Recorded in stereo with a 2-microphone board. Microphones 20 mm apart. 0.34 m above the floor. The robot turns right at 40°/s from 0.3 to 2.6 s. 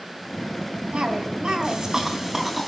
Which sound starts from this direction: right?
A cough, at 0.9 s.